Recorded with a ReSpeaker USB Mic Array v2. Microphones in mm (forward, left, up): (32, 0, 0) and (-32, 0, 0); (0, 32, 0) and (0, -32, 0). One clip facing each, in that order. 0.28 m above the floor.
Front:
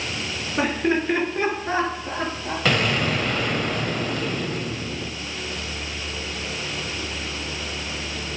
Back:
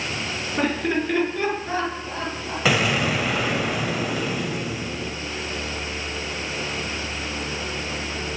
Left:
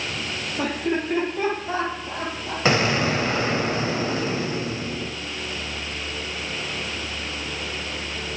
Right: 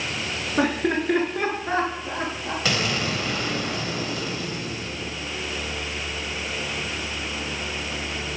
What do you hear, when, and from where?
0.6 s laughter: 80° right, 3.5 m; by 2.5 s 45° right, 4.5 m
2.6 s an explosion: 100° left, 1.1 m